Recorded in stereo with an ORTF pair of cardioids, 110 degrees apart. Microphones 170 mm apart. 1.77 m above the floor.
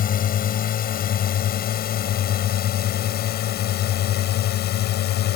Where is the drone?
55° left; by 5.4 s 70° left.